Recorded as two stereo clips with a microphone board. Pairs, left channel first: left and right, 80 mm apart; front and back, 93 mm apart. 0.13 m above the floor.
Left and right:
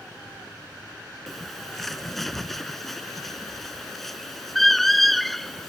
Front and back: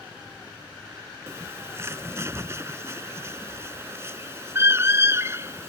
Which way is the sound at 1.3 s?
175° left.